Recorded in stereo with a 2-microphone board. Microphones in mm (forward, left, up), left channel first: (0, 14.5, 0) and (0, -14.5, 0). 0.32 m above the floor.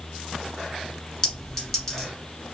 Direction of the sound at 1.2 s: 15° left (ahead or behind).